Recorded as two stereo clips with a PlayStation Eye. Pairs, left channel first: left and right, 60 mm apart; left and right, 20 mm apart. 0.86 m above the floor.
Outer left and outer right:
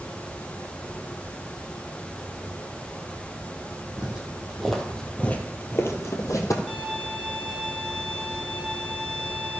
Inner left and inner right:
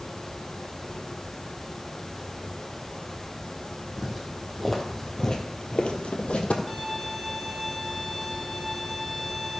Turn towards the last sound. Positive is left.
turn(degrees=5)  # may be behind; listen again after turning